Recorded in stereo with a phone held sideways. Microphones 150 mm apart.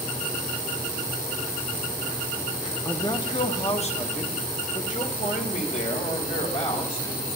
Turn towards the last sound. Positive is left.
turn(degrees=55)  # may be behind; listen again after turning